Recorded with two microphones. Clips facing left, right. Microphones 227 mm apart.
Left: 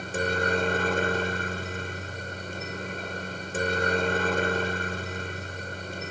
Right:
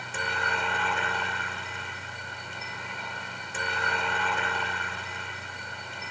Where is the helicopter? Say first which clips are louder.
Left 9 dB; 45° left (ahead or behind).